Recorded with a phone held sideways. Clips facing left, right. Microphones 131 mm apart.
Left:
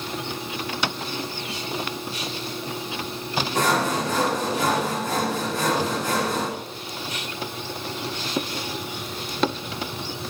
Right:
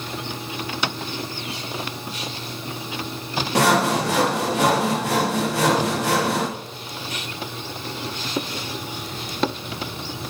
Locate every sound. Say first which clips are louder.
3.5 s sawing: right 5 dB; 80° right, 1.3 m